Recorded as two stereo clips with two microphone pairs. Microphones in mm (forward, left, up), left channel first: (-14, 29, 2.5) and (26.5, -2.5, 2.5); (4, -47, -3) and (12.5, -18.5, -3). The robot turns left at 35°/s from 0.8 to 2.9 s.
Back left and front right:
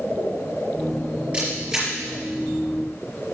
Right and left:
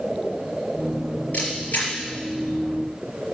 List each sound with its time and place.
1.3 s a camera shutter: 105° right, 4.5 m; by 1.9 s 125° right, 4.5 m